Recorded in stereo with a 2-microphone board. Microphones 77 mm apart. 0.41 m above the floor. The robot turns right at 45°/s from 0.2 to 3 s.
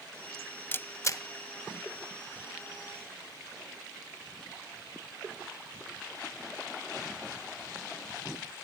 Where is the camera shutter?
25° left (ahead or behind), 0.5 m; by 1.2 s 50° left (ahead or behind), 0.5 m.